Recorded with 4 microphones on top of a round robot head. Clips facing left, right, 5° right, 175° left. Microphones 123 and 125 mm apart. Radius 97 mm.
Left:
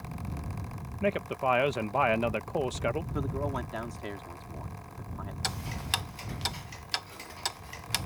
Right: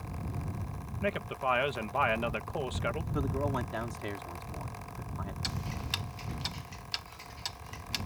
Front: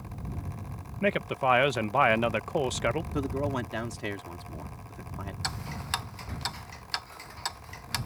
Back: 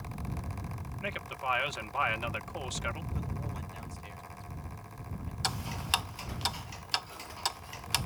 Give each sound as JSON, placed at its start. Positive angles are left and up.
{"t": 1.0, "sound": "a man speaking", "azimuth_deg": 25}
{"t": 3.1, "sound": "a man speaking", "azimuth_deg": 0}
{"t": 5.4, "sound": "ticking", "azimuth_deg": 100}